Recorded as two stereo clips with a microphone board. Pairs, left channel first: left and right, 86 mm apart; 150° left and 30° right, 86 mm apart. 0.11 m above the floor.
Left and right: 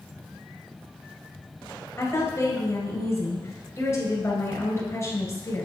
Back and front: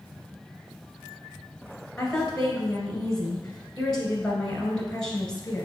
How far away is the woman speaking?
About 1.6 m.